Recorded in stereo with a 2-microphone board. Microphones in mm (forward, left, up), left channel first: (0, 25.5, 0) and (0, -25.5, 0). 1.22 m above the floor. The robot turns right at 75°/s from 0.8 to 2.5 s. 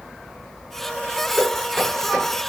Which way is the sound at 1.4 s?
45° left (ahead or behind).